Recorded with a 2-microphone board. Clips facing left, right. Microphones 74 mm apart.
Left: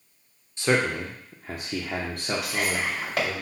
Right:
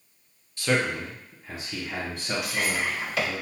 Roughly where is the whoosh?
No whoosh in this recording.